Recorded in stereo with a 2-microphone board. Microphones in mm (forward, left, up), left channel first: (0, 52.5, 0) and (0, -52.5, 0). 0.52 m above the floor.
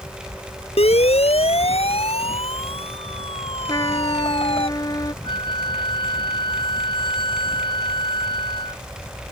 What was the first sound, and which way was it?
A siren, 70° left (ahead or behind).